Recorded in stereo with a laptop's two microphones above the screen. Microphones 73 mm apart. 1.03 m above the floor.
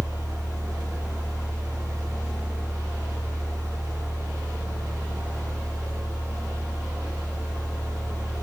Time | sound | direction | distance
0.0 | a fan | 55° right (ahead or behind) | 0.8 m